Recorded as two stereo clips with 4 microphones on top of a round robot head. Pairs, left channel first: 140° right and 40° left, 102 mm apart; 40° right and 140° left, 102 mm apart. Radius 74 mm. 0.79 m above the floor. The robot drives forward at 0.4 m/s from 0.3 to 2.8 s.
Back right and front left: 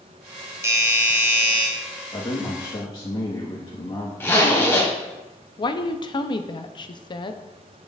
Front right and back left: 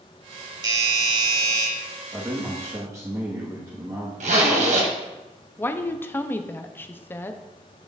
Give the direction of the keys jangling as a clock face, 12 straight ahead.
I don't hear keys jangling.